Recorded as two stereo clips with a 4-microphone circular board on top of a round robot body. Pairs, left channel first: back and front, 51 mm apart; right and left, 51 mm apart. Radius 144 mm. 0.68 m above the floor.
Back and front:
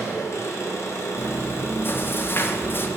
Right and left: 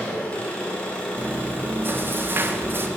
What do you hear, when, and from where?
0.0 s an engine running: 155° right, 1.2 m
1.2 s chewing: 135° left, 0.5 m